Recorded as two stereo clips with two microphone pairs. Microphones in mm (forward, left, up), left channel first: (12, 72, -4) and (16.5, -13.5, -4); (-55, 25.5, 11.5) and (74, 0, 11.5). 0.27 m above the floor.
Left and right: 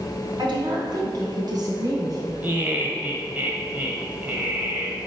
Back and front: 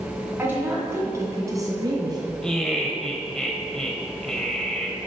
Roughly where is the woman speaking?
Right.